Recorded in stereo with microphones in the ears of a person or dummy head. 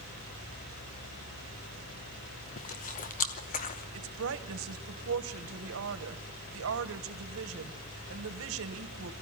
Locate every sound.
2.6 s chewing: 40° left (ahead or behind), 0.9 m
3.9 s a woman speaking: 70° right (ahead or behind), 1.3 m